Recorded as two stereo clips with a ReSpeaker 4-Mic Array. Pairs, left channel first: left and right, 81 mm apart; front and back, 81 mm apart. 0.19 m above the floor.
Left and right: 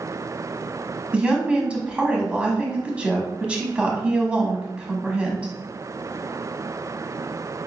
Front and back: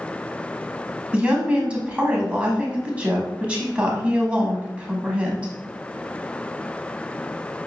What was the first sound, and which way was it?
A woman speaking, 140° right.